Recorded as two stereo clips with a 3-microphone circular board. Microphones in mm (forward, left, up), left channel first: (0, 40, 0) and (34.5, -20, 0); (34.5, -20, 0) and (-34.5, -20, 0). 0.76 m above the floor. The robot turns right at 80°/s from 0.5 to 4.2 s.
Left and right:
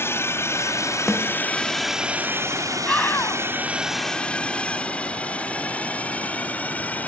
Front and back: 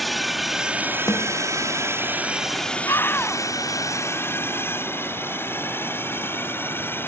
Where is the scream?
40° left; by 3.4 s 85° left.